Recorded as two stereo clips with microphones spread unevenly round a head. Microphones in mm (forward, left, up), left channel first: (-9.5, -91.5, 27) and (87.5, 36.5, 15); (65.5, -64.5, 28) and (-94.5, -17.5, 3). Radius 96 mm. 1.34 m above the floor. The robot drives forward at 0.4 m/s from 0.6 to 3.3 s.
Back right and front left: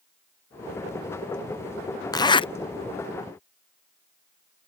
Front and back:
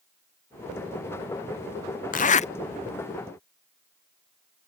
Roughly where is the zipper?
Ahead right.